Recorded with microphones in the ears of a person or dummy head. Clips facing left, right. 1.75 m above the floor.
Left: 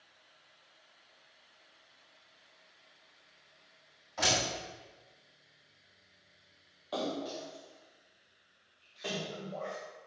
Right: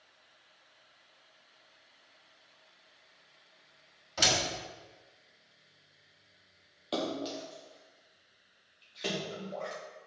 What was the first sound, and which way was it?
A door slam, 40° right (ahead or behind).